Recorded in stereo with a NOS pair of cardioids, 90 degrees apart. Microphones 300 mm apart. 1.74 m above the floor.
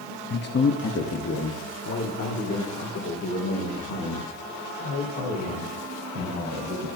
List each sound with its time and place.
0.3 s a man speaking: 30° left, 0.9 m; by 6.9 s 60° left, 6 m